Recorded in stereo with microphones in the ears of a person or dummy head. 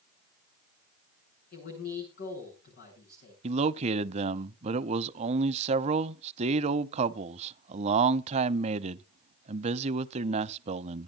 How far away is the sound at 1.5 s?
About 8.5 m.